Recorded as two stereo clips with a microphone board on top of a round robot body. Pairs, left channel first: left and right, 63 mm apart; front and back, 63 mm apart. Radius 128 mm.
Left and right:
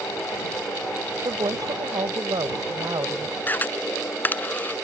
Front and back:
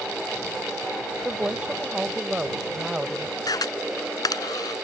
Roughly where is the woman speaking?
Right.